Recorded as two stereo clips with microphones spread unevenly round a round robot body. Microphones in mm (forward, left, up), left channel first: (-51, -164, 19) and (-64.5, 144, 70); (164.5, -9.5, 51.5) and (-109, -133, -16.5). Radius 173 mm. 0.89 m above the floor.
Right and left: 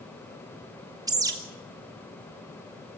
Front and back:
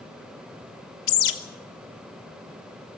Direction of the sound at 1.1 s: 10° left.